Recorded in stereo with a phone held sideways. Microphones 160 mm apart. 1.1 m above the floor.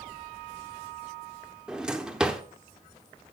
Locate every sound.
1.7 s a drawer: 5° right (ahead or behind), 0.7 m